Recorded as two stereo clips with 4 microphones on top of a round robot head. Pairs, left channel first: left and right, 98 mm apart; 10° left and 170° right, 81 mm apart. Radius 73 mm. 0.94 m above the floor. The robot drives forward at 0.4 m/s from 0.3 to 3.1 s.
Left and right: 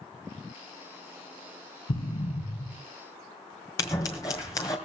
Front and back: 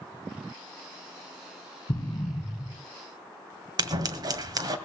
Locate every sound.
1.9 s an explosion: 55° left, 3.5 m; by 2.8 s 60° left, 3.5 m
3.8 s scissors: 155° left, 1.9 m